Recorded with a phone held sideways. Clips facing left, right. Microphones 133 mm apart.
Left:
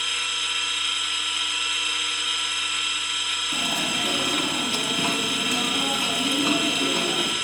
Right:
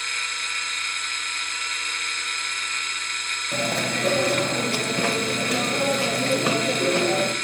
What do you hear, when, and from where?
0.0 s a machine running: 10° left (ahead or behind), 1.0 m
3.5 s chewing: 70° right (ahead or behind), 4 m